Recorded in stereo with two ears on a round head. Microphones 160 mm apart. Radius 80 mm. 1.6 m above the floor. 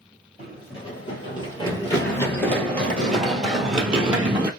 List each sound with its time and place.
0.4 s running footsteps: 35° left (ahead or behind), 2.0 m; by 4.5 s 10° right (ahead or behind), 1.9 m